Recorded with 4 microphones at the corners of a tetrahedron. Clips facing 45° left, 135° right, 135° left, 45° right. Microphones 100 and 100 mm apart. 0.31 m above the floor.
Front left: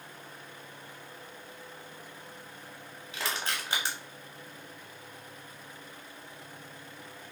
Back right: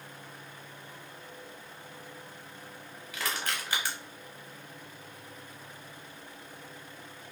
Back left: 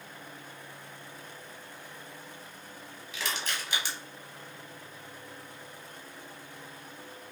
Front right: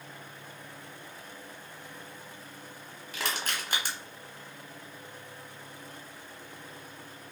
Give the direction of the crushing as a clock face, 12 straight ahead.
1 o'clock.